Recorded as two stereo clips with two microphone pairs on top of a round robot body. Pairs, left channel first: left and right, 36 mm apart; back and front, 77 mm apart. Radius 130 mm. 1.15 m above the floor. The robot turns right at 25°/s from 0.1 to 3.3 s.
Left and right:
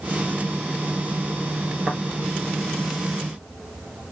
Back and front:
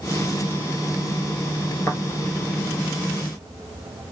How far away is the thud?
About 1.9 m.